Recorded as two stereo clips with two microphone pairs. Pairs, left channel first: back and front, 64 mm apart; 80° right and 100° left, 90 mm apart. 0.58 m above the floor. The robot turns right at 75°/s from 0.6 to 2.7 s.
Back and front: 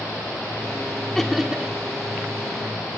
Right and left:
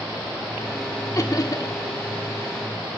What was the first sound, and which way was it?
Laughter, 105° right.